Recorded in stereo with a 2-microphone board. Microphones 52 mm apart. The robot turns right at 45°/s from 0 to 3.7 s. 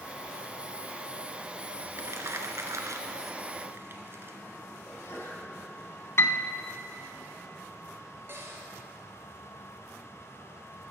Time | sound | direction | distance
2.0 | crumpling | 55° right (ahead or behind) | 1.0 m
4.8 | a sneeze | 60° left (ahead or behind) | 2.5 m
6.2 | a piano | 60° left (ahead or behind) | 0.7 m
8.3 | a cupboard door | 50° right (ahead or behind) | 2.5 m